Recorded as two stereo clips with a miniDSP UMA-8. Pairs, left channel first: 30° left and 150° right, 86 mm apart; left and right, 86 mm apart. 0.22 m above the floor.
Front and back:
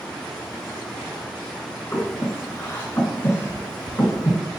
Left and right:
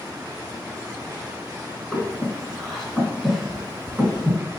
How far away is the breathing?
About 1.6 m.